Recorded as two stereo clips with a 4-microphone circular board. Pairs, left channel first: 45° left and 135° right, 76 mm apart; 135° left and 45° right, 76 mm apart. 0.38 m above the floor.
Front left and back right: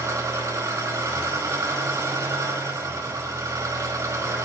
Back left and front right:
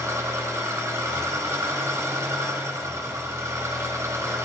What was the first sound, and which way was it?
An engine running, 90° right.